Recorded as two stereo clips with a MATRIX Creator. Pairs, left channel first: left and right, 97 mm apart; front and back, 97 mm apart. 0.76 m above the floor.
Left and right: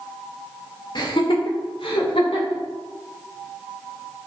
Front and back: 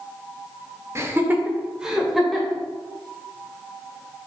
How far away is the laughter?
About 1.8 m.